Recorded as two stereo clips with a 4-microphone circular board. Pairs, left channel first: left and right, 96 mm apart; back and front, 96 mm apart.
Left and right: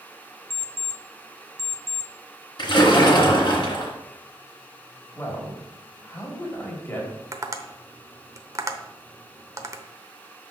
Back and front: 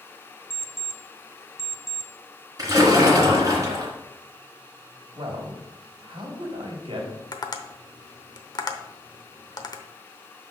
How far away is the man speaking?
About 2.5 m.